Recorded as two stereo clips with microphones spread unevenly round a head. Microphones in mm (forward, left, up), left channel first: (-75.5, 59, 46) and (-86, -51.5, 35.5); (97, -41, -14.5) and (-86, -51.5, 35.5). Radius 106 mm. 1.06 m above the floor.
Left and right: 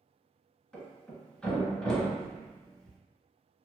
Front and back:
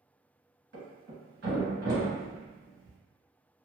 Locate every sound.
0.7 s a thud: 160° left, 2.0 m